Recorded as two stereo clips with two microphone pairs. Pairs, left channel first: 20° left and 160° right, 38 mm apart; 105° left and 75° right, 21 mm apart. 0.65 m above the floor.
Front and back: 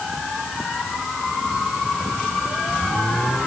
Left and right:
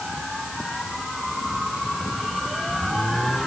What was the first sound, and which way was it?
Only background noise.